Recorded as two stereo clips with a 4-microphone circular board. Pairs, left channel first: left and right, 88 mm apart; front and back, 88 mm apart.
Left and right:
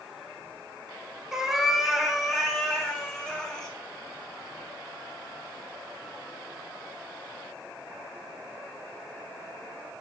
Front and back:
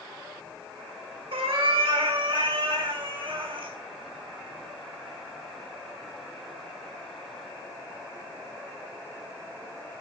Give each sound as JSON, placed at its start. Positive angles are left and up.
{"t": 1.3, "sound": "a cat meowing", "azimuth_deg": -175, "distance_m": 1.2}